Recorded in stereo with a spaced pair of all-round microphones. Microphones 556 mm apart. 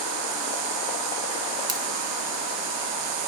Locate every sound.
1.7 s scissors: 40° right (ahead or behind), 1.4 m